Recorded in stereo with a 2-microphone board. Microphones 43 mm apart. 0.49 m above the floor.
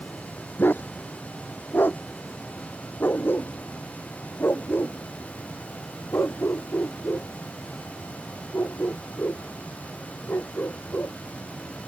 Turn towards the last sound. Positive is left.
turn(degrees=65)  # may be behind; listen again after turning